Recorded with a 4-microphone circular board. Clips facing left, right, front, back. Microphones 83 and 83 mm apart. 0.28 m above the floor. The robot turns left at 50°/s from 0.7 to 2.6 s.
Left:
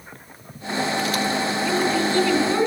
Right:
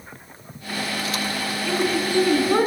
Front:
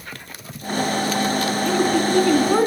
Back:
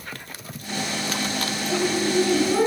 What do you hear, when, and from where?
1.6 s a woman speaking: 10° left, 3 m; by 2.7 s 40° right, 3 m